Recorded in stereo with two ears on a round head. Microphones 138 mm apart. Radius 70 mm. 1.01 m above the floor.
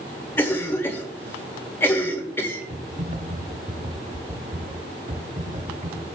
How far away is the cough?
About 2.0 m.